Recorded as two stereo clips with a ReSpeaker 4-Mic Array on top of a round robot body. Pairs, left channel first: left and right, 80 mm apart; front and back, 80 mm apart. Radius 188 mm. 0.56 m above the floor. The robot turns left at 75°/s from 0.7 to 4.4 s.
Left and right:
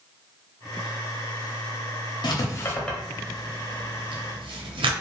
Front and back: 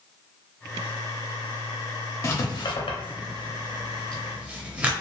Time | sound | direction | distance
2.2 | writing | 55° left | 0.7 m